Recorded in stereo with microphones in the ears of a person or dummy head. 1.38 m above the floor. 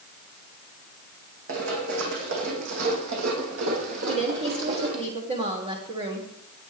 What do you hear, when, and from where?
1.5 s running footsteps: 70° right (ahead or behind), 5 m; by 5.1 s 60° right (ahead or behind), 3 m
4.1 s a woman speaking: 30° right (ahead or behind), 3 m